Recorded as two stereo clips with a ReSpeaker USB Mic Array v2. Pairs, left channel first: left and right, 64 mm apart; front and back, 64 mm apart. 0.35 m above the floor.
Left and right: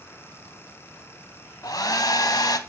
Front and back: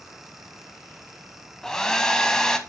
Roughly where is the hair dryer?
Left.